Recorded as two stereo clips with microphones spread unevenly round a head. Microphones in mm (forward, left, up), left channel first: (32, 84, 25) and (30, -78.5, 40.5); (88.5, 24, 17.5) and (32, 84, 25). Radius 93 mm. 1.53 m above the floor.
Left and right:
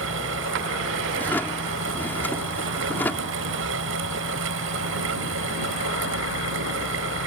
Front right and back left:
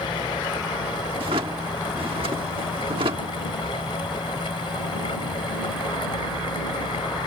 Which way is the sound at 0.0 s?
110° right.